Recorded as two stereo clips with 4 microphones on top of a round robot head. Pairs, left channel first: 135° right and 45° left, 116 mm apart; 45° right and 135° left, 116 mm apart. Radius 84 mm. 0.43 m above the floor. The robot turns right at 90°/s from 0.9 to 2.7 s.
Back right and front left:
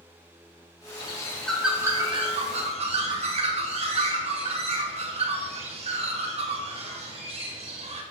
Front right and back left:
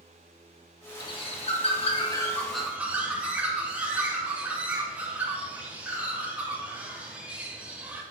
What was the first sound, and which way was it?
A bird, 95° right.